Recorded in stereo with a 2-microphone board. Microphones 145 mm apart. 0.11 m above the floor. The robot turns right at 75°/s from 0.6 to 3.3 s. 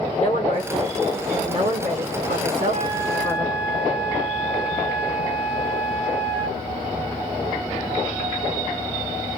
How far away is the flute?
About 5.5 m.